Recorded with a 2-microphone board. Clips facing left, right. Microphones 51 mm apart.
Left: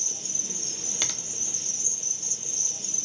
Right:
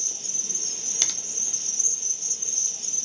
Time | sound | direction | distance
0.0 | an insect | 5° left (ahead or behind) | 0.8 m
1.0 | a finger snap | 10° left (ahead or behind) | 0.6 m